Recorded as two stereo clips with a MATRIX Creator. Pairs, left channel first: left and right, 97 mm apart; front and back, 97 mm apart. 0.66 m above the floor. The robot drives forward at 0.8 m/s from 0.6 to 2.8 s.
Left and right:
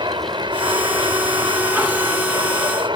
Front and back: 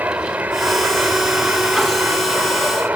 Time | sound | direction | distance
0.0 | an aircraft | 110° right | ?